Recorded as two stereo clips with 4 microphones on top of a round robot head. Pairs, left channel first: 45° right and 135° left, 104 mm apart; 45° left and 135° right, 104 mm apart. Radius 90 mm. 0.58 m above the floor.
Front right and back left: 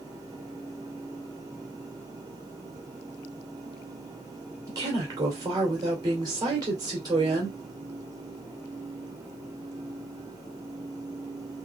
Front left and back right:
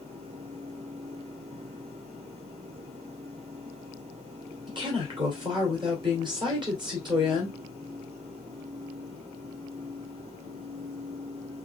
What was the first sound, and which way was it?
A woman speaking, 175° right.